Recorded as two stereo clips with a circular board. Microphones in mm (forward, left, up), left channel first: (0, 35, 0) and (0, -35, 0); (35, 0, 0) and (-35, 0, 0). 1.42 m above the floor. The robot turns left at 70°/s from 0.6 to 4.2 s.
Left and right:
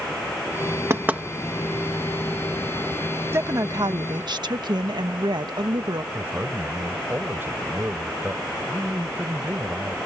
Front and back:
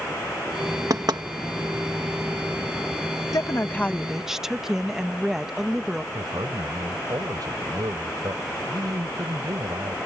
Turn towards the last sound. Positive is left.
turn(degrees=-150)